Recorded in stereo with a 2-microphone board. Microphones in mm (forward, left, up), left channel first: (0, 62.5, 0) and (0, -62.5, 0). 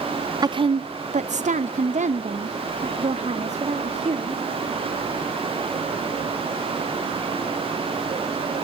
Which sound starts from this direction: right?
A woman speaking, at 0.4 s.